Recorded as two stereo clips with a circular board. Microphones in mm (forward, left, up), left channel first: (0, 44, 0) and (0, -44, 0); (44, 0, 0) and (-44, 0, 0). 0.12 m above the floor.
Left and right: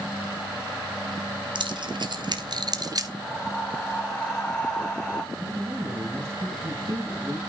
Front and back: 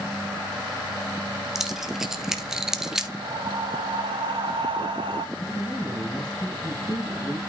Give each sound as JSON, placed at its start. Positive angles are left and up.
{"t": 1.6, "sound": "keys jangling", "azimuth_deg": -95, "distance_m": 1.8}
{"t": 3.2, "sound": "breathing", "azimuth_deg": 170, "distance_m": 2.5}
{"t": 5.3, "sound": "a woman speaking", "azimuth_deg": -35, "distance_m": 4.5}